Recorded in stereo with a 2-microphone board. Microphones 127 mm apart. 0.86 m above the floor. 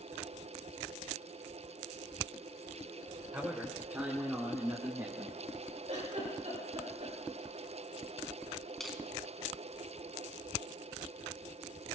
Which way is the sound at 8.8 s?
Centre (ahead or behind).